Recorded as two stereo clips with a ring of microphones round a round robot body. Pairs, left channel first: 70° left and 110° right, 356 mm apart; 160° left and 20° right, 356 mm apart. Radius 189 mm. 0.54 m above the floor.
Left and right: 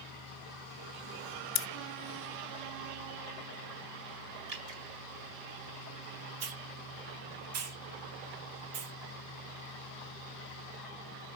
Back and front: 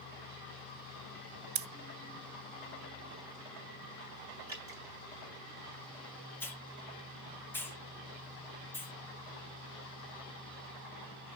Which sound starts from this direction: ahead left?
Scissors, at 1.6 s.